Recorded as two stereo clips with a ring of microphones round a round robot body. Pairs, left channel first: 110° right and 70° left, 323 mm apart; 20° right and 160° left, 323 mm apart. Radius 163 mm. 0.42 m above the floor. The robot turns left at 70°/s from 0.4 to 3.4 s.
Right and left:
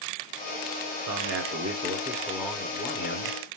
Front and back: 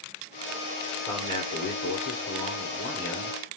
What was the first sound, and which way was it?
A man speaking, 55° left.